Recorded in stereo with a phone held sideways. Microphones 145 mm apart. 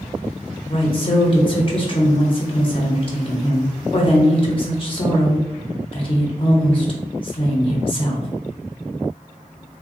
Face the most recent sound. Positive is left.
turn(degrees=40)  # may be behind; listen again after turning